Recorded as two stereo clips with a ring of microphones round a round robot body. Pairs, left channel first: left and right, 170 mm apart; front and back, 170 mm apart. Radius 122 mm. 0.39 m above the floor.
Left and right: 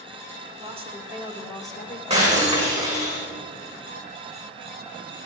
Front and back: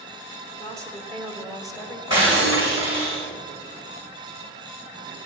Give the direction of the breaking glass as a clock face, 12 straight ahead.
1 o'clock.